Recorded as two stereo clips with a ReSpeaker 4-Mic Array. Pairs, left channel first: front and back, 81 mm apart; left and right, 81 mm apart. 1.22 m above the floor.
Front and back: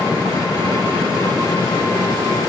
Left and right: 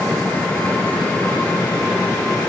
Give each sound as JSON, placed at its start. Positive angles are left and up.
{"t": 0.0, "sound": "an engine running", "azimuth_deg": 20, "distance_m": 7.0}